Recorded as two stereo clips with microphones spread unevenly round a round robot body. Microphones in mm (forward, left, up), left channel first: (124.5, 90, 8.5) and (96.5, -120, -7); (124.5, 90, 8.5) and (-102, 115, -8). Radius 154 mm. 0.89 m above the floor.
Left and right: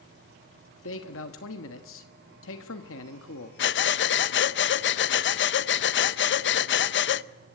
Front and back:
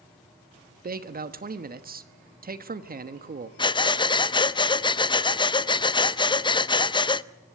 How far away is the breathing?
About 0.6 m.